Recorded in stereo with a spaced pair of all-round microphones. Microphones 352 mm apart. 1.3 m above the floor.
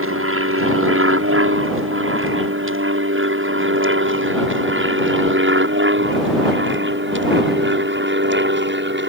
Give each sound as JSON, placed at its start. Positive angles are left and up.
{"t": 0.0, "sound": "an aircraft", "side_deg": -40}